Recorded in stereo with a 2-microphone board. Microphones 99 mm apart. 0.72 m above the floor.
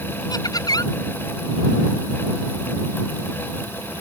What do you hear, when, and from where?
0.3 s laughter: 40° left (ahead or behind)